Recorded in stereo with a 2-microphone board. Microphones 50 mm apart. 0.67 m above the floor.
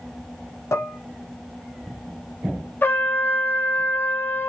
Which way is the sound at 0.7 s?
70° left (ahead or behind).